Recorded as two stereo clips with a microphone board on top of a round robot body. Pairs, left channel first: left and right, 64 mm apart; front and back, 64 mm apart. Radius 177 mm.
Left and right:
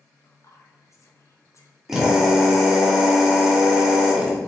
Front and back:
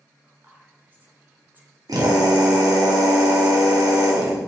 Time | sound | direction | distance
0.2 | whispering | 120° left | 2 m
1.9 | a drill | 175° right | 2.5 m